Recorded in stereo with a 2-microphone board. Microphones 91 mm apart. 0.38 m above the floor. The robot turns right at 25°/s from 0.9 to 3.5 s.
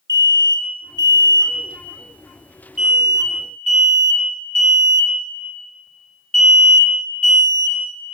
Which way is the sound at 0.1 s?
40° right (ahead or behind).